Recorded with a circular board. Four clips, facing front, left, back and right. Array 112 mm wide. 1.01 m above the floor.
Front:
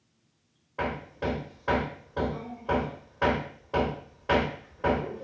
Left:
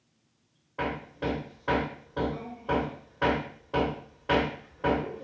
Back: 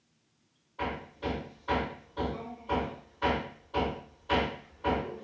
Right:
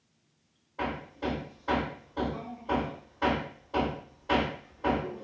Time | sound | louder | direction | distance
0.8 | hammering | left 2 dB, front 4 dB | 35° left | 1.3 m